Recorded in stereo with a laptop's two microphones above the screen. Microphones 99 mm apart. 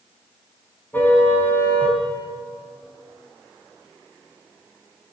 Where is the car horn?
20° left (ahead or behind), 3.5 m.